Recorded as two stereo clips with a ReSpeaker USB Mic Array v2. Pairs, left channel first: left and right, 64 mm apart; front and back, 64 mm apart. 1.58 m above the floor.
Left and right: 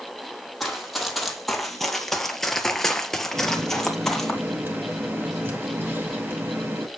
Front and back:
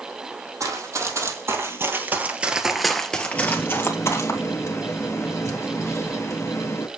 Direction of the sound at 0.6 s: Straight behind.